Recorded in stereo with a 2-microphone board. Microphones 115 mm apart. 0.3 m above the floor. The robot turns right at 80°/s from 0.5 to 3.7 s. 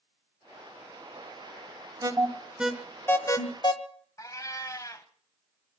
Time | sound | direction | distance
2.0 | an alarm | 35° right (ahead or behind) | 1.0 m
4.2 | a cat meowing | 30° left (ahead or behind) | 0.9 m